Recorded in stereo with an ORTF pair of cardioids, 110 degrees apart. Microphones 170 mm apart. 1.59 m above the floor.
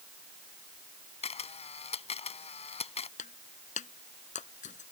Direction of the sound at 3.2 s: 45° left.